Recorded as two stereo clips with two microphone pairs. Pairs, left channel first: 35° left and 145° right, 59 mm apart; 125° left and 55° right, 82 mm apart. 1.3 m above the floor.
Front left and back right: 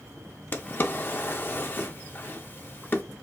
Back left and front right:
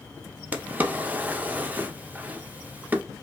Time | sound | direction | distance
0.5 | a drawer | 10° left | 0.6 m